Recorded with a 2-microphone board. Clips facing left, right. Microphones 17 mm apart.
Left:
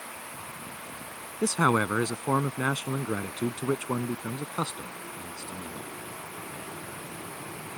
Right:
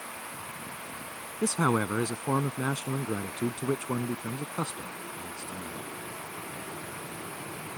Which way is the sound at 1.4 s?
40° left (ahead or behind).